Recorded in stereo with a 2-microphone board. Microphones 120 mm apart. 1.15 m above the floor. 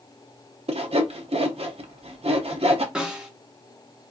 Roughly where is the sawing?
Right.